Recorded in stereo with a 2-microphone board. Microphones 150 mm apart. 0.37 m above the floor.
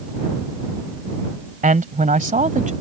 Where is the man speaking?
60° right (ahead or behind); by 2.7 s 55° right (ahead or behind).